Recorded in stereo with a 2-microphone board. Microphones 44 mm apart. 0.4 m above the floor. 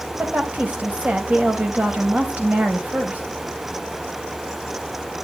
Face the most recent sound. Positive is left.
turn(degrees=-35)  # may be behind; listen again after turning